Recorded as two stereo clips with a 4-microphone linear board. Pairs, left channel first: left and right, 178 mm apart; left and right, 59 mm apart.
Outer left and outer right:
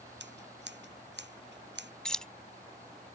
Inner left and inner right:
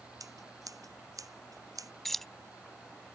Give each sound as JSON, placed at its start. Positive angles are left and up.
{"t": 0.2, "sound": "scissors", "side_deg": -80}
{"t": 2.0, "sound": "keys jangling", "side_deg": 5}